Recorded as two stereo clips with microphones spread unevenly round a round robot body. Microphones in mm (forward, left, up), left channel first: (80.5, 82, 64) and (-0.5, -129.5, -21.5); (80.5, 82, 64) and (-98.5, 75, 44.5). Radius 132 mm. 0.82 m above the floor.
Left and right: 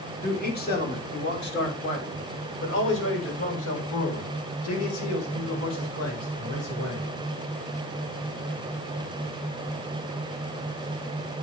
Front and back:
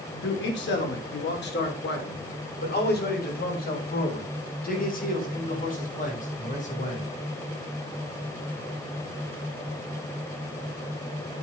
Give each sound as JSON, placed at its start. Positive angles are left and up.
{"t": 0.2, "sound": "a man speaking", "azimuth_deg": 10, "distance_m": 3.5}